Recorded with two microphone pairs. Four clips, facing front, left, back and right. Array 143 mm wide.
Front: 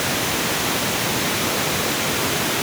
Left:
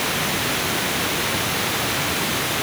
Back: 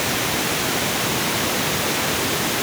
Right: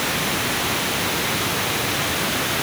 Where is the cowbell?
No cowbell in this recording.